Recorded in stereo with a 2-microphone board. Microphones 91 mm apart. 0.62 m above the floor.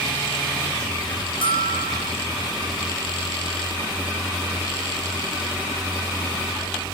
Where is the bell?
70° left (ahead or behind), 3.5 m.